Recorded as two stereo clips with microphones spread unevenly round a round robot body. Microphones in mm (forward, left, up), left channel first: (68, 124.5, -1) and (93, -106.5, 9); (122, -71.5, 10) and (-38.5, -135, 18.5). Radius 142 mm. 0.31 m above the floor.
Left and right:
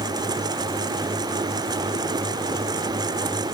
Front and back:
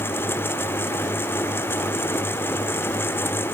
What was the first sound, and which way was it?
Only background noise.